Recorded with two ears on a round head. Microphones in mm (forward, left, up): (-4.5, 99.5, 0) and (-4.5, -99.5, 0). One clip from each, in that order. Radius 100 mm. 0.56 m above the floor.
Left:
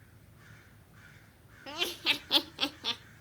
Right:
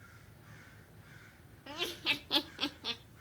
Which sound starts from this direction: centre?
Laughter, at 1.7 s.